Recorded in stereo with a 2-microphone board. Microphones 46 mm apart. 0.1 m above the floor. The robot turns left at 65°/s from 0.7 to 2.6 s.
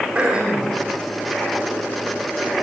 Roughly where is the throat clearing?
Centre.